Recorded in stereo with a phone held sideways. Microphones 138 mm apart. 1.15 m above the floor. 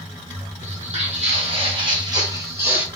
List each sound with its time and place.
0.6 s footsteps: 55° right (ahead or behind), 2 m; by 2.9 s 10° right (ahead or behind), 1.3 m